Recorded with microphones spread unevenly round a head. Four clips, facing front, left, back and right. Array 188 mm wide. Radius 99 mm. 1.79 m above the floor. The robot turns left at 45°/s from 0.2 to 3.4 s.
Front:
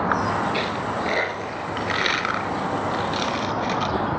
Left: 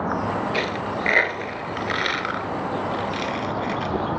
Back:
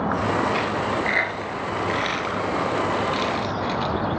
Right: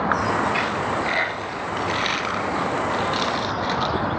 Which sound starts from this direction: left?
A dropped coin, at 0.5 s.